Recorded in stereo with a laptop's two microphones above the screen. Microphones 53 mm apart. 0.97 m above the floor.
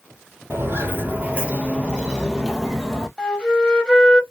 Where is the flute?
20° left (ahead or behind), 0.8 m.